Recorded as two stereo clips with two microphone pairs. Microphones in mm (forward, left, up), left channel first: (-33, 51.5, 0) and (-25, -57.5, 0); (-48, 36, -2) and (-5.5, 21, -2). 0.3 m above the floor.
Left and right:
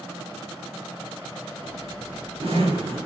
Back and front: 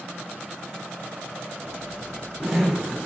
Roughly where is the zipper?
Right.